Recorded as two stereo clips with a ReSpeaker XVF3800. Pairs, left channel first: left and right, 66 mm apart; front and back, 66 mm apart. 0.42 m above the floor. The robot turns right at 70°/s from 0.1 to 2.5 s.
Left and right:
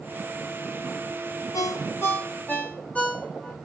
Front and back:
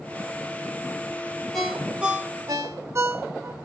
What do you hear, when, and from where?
1.5 s a ringtone: 85° left, 0.8 m; by 3.5 s 150° left, 0.8 m